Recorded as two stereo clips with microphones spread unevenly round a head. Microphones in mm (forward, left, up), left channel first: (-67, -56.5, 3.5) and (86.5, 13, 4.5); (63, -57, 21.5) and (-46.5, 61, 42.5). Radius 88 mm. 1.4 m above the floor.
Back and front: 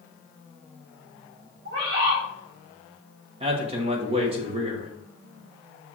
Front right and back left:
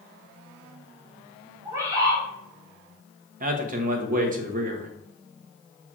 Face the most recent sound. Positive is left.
turn(degrees=85)